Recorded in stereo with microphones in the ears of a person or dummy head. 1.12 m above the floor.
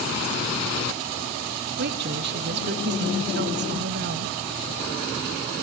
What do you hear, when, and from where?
1.8 s a woman speaking: 50° right (ahead or behind), 1.6 m